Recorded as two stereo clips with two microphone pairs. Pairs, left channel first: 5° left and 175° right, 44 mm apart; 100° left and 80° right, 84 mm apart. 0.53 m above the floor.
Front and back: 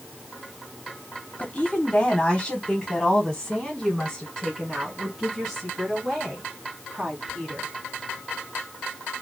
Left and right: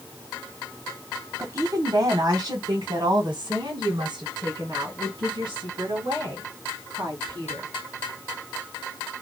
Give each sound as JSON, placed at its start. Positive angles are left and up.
{"t": 1.4, "sound": "a woman speaking", "azimuth_deg": -55, "distance_m": 1.1}